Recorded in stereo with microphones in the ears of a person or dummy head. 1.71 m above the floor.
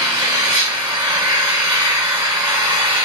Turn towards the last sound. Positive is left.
turn(degrees=-20)  # may be behind; listen again after turning